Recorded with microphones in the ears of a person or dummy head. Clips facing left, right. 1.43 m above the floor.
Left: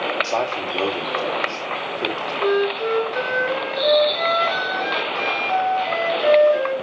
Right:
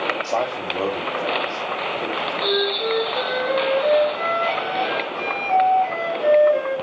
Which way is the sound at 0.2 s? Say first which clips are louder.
Even; 5° left (ahead or behind).